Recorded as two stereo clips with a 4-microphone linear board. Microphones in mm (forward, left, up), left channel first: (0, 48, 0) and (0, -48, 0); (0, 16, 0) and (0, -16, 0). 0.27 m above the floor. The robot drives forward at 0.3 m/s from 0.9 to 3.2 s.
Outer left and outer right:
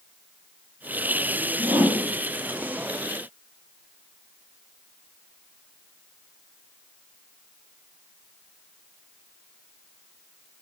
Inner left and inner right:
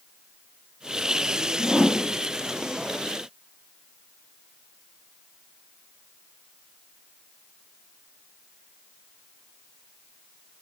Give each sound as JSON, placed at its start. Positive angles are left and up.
{"t": 1.6, "sound": "a whoosh", "side_deg": -55, "distance_m": 2.0}